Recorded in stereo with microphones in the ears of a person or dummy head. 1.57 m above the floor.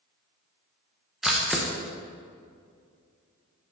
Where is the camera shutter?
Centre (ahead or behind), 0.9 m.